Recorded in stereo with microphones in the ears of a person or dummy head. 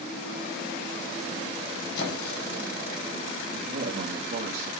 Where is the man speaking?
65° right (ahead or behind), 2.5 m.